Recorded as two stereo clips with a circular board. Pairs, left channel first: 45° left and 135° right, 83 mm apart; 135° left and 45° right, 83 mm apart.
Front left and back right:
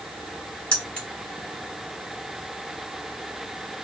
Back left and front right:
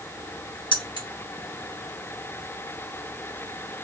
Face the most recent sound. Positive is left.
turn(degrees=120)